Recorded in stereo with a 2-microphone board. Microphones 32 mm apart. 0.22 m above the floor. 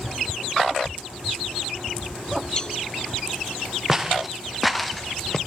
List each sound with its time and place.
2.6 s a cowbell: 25° left (ahead or behind), 1.7 m
3.9 s footsteps: 15° right (ahead or behind), 2.5 m; by 5.4 s 10° left (ahead or behind), 1.6 m